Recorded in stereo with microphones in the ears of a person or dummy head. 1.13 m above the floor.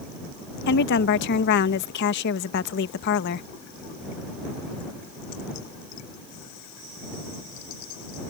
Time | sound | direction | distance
0.7 | a woman speaking | 60° left (ahead or behind) | ?